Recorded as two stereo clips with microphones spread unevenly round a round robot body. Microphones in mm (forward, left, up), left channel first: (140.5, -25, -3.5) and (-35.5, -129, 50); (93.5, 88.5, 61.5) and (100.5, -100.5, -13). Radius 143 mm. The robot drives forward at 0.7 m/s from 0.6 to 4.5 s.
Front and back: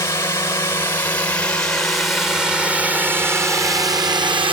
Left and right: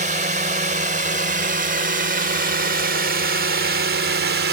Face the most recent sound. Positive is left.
turn(degrees=-80)